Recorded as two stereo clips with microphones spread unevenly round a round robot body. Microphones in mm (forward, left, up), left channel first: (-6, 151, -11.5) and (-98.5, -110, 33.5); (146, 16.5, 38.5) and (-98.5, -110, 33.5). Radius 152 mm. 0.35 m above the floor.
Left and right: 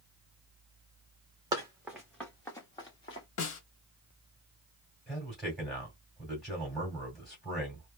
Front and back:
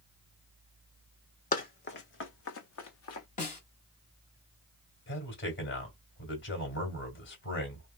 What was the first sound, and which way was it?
Running footsteps, 35° right.